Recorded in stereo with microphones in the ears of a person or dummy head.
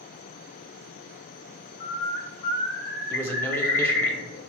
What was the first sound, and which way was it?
A bird, 40° left (ahead or behind).